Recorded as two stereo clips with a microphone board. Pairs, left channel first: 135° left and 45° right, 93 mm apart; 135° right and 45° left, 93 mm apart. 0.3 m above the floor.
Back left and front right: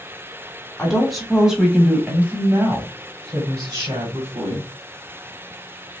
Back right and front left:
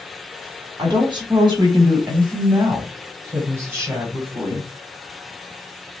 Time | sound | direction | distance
0.8 | a woman speaking | 55° left | 1.8 m